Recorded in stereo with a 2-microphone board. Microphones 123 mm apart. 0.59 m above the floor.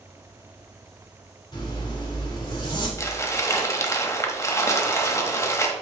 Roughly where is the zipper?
Left.